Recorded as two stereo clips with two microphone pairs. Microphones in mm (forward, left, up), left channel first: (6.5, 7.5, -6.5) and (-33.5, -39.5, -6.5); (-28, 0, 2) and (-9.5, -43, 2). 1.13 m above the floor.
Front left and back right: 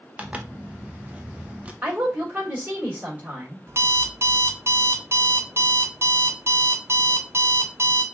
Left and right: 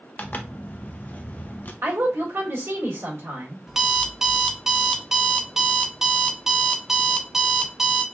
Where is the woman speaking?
70° right, 1.9 m.